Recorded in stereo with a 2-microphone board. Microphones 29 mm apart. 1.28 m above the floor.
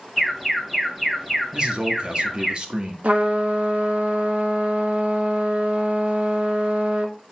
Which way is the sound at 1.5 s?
35° right (ahead or behind).